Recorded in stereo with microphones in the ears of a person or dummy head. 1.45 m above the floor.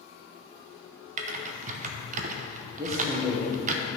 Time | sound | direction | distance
1.2 | typing on a keyboard | 45° right (ahead or behind) | 0.8 m
2.8 | a man speaking | 20° right (ahead or behind) | 1.4 m